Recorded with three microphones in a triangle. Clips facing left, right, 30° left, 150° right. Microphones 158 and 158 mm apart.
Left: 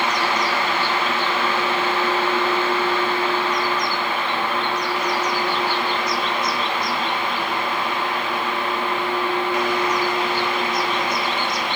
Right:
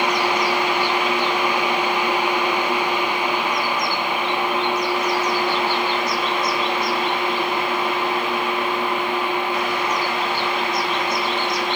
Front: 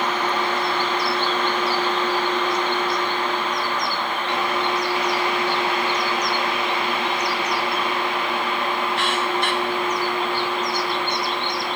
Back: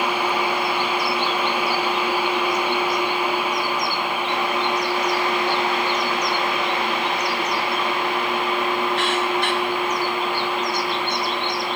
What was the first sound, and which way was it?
Only background noise.